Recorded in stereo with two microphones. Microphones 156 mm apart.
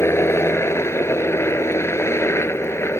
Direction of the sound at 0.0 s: 15° left (ahead or behind).